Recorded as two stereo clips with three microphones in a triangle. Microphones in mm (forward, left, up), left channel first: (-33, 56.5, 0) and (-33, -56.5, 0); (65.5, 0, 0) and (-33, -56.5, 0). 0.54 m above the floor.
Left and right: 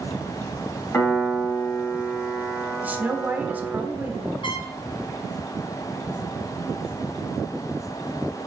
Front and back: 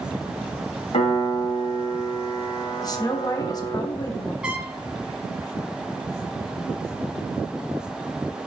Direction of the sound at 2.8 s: 15° right.